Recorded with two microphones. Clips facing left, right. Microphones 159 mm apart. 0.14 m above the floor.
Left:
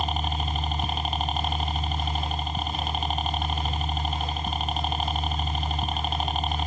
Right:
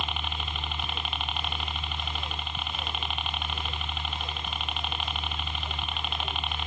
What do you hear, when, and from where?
0.0 s a helicopter: 40° left (ahead or behind)